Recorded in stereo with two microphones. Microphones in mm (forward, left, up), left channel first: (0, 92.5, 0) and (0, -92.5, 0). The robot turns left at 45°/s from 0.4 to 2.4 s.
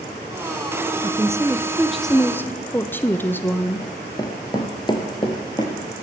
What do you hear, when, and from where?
1.0 s a woman speaking: 140° right, 0.6 m; by 3.9 s 160° left, 0.6 m
3.8 s running footsteps: 15° left (ahead or behind), 1.2 m; by 5.8 s 20° left (ahead or behind), 1.5 m